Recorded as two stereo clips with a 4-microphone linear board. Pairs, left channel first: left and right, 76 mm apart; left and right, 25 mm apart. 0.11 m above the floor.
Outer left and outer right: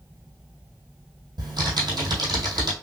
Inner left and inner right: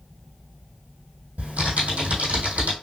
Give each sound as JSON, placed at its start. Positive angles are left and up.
{"t": 1.4, "sound": "typing on a keyboard", "side_deg": -75, "distance_m": 2.0}